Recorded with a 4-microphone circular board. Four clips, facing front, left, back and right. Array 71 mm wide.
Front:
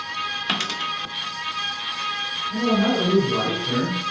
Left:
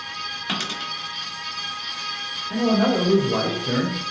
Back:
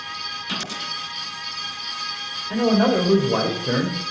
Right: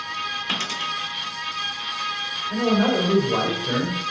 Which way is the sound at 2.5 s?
165° left.